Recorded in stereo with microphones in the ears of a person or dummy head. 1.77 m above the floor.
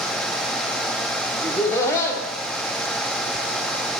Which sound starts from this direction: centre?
Laughter, at 1.4 s.